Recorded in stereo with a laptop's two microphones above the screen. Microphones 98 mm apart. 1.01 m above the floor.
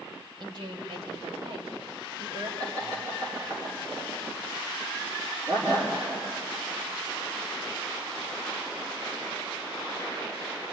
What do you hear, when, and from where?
0.4 s a woman speaking: 55° right (ahead or behind), 4 m; by 2.5 s 85° right, 5 m
2.6 s laughter: 45° right (ahead or behind), 3 m